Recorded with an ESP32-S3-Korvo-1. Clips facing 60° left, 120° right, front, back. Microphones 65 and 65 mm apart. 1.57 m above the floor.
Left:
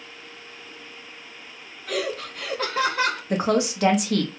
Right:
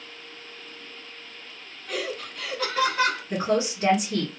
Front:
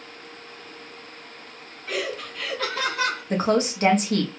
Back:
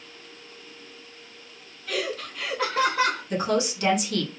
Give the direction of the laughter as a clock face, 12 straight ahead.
10 o'clock.